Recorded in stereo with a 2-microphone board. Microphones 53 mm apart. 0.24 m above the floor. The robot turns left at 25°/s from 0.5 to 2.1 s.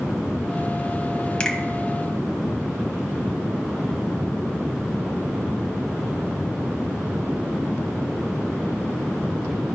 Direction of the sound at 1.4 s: 20° left (ahead or behind).